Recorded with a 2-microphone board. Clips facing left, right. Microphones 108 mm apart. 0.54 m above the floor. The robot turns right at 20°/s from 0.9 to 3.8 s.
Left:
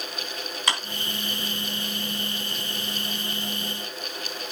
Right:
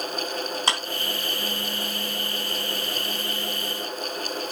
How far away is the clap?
About 3.5 m.